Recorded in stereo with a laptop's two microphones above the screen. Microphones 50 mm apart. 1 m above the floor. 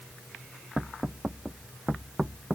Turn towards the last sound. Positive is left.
No sound to turn to.